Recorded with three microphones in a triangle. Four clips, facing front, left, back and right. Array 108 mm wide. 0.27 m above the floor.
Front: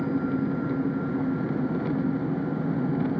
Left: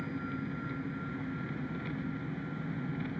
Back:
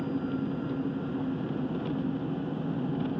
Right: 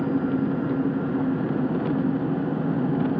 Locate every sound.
0.0 s an engine running: 75° right